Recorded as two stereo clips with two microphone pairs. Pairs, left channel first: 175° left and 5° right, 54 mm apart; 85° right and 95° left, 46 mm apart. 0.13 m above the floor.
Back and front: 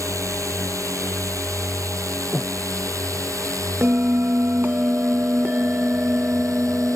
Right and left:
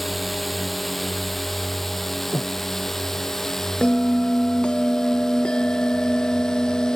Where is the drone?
5° left; by 7.0 s 10° right.